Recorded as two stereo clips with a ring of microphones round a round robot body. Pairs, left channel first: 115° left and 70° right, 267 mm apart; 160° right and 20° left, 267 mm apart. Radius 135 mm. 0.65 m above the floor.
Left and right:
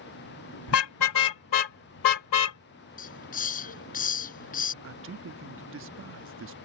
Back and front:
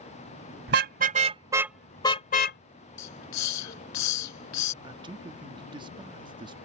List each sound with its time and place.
0.7 s a car horn: 75° left; by 2.6 s 150° left
3.0 s a hiss: 175° left
4.8 s a man speaking: 45° right